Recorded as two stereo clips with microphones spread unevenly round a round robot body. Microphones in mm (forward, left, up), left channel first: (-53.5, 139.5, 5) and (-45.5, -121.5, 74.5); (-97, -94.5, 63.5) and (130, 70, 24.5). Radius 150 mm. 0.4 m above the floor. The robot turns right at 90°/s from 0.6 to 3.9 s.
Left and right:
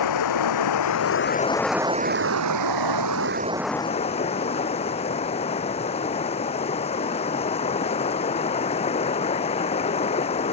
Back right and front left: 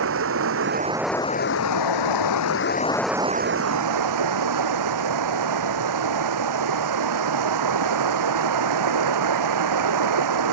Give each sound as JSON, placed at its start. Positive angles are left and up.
{"t": 0.0, "sound": "running water", "azimuth_deg": 85}